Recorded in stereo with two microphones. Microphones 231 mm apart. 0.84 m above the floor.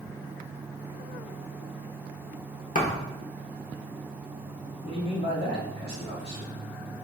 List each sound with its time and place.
2.8 s a thud: 35° left (ahead or behind), 0.7 m
4.8 s a man speaking: 25° left (ahead or behind), 1.6 m